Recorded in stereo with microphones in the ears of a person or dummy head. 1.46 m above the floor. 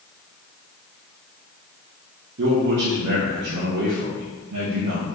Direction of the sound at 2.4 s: 50° right (ahead or behind).